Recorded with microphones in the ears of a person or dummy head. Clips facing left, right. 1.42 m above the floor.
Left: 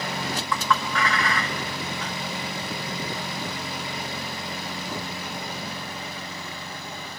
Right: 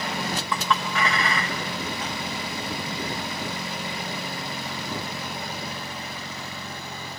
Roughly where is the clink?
Right.